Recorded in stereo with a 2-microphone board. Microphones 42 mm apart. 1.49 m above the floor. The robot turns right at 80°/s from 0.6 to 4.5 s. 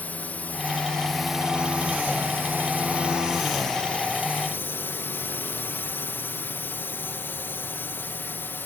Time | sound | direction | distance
0.0 | a drone | 130° left | ?